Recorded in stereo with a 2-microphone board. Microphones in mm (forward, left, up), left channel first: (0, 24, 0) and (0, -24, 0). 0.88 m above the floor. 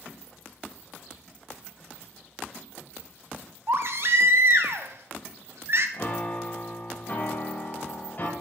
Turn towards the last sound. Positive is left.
turn(degrees=40)  # may be behind; listen again after turning